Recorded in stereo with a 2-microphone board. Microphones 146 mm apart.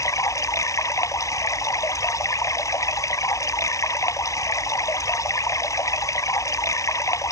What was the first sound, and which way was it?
Running water, 20° left (ahead or behind).